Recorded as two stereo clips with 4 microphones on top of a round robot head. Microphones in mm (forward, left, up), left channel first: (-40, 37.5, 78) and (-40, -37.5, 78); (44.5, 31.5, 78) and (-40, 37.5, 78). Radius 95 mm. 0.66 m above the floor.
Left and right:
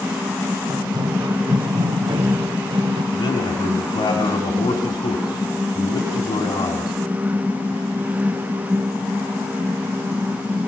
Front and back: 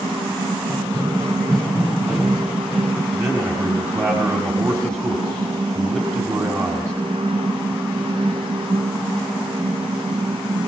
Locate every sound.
0.7 s running footsteps: 120° right, 2.5 m; by 3.0 s 100° right, 4 m
3.1 s a man speaking: 120° left, 5 m